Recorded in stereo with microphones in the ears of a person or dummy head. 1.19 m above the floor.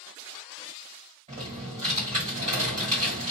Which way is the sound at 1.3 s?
35° right (ahead or behind).